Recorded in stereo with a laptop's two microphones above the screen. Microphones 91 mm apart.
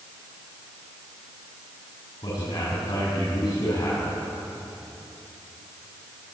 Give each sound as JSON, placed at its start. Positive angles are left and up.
{"t": 2.2, "sound": "a man speaking", "side_deg": 55, "distance_m": 7.5}